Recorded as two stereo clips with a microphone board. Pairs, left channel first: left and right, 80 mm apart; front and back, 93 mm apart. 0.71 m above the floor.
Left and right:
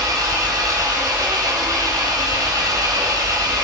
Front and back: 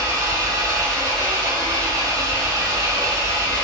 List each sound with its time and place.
0.0 s an engine running: 130° right, 5 m